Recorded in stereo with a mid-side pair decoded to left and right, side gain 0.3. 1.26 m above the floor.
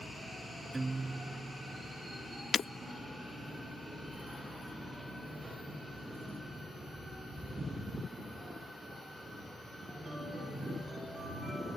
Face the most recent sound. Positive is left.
turn(degrees=60)